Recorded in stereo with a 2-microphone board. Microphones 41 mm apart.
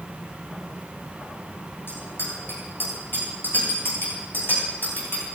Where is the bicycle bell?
65° left (ahead or behind), 8.5 m; by 5.2 s 55° left (ahead or behind), 12.5 m.